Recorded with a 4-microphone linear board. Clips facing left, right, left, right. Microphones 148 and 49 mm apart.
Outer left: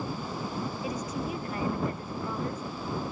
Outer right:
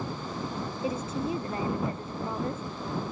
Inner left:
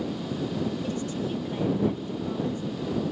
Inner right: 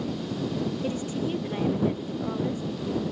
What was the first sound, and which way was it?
A woman speaking, 30° right (ahead or behind).